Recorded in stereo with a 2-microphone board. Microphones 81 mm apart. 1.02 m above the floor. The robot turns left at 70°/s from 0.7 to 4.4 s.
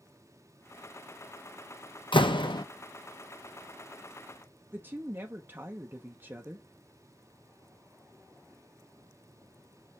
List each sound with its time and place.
2.1 s a door slam: 100° left, 0.8 m; by 2.6 s 65° left, 0.8 m
4.7 s a woman speaking: 25° right (ahead or behind), 1.0 m